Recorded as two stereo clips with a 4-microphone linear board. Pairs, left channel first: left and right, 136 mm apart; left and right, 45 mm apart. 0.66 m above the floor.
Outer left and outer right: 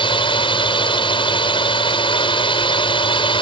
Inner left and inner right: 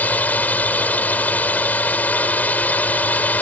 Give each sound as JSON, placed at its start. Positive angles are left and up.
{"t": 0.0, "sound": "a drone", "side_deg": 40}